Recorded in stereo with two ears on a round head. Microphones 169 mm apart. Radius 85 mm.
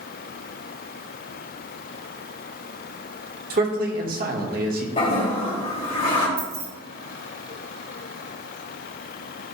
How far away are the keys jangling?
About 2 m.